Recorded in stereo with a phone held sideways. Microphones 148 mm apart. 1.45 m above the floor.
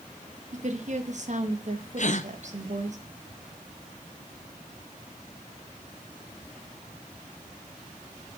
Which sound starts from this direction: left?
A gasp, at 2.0 s.